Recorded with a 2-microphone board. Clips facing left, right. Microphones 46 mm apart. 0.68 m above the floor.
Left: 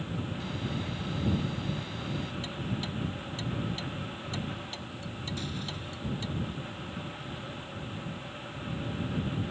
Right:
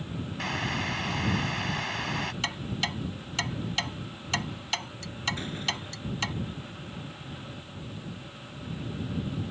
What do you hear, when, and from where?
0.4 s boiling: 75° right (ahead or behind)
2.4 s ticking: 80° right
5.4 s a door slam: 30° right (ahead or behind)